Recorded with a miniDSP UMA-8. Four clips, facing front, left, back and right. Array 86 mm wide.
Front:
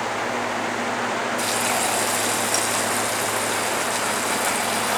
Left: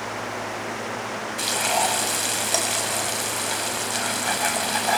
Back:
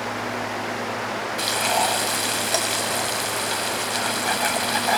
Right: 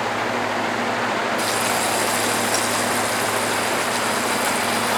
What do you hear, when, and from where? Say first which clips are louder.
1.4 s frying: right 2 dB, back 1 dB; 140° left, 6 m